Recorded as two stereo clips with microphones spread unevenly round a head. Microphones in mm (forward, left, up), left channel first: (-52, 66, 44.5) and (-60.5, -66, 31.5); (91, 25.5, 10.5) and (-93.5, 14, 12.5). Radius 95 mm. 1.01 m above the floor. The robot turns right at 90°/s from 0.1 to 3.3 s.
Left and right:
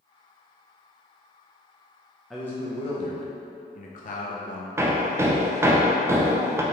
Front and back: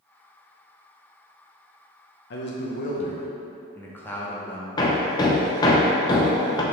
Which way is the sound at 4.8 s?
45° right.